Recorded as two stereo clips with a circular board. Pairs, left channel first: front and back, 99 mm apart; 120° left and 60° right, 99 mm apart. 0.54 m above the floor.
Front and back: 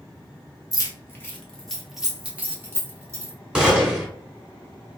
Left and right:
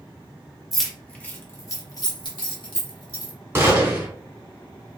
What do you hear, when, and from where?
0.7 s keys jangling: 30° left, 0.9 m; by 3.3 s 125° left, 1.5 m
3.5 s a gunshot: 100° right, 1.1 m